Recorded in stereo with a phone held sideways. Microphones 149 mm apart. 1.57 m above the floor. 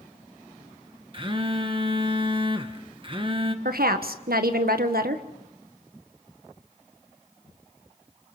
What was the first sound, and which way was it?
A phone buzzing, 35° right (ahead or behind).